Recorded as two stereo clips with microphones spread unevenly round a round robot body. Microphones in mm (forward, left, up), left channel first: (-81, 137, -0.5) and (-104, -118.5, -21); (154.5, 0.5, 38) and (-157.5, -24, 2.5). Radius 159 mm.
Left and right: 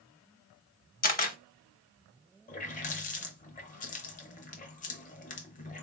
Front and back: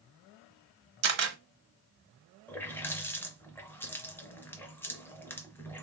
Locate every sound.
1.0 s a camera shutter: 140° left, 0.9 m
2.5 s a running tap: 95° left, 0.5 m